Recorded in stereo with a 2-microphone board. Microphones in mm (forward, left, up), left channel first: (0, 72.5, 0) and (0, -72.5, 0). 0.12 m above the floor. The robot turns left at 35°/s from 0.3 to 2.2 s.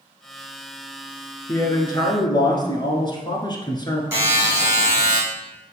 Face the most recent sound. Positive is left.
turn(degrees=-15)  # may be behind; listen again after turning